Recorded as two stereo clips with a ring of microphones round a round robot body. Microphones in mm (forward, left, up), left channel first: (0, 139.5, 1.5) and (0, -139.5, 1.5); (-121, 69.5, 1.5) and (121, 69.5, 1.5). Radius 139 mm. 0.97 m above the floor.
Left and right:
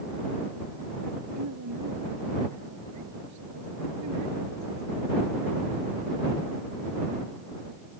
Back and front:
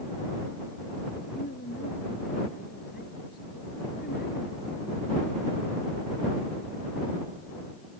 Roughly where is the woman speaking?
Behind right.